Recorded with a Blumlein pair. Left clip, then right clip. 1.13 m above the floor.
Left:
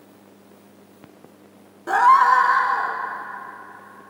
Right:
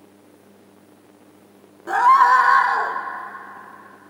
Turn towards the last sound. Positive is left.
turn(degrees=-25)